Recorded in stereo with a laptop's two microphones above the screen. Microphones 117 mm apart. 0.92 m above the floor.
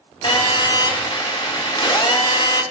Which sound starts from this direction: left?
A phone buzzing, at 0.2 s.